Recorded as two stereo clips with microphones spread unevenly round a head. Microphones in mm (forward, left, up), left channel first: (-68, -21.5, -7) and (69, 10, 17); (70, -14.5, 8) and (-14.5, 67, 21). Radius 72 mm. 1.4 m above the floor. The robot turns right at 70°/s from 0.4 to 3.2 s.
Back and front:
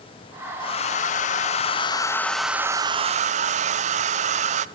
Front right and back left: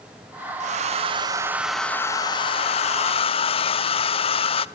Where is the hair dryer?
150° left, 0.6 m; by 4.7 s 25° right, 0.6 m.